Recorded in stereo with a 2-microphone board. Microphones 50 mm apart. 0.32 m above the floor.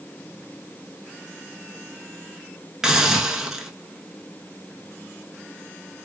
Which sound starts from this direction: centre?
A hiss, at 2.8 s.